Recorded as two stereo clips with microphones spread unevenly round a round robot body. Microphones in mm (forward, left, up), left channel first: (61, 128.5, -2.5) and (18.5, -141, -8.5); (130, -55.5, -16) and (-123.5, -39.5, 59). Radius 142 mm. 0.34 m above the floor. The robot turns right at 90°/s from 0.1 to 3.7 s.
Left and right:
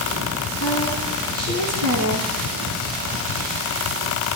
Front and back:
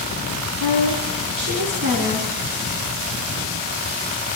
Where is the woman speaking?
130° left, 4.5 m; by 2.3 s 80° right, 4.5 m.